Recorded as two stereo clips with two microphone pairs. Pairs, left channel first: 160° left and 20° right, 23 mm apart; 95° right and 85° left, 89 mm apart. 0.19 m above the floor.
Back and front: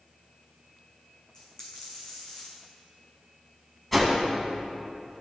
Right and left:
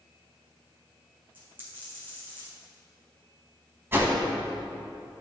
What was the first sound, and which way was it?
A dropped coin, 105° left.